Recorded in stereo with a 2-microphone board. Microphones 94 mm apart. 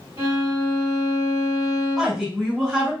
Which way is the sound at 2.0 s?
Centre (ahead or behind).